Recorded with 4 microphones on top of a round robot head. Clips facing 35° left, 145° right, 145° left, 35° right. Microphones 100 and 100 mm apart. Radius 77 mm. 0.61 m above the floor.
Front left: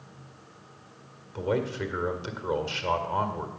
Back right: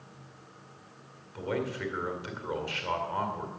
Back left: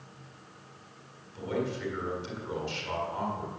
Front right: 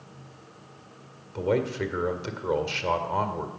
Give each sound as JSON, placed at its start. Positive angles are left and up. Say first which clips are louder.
{"t": 1.4, "sound": "a man speaking", "louder": "front left 4 dB, front right 7 dB", "azimuth_deg": -25, "distance_m": 2.0}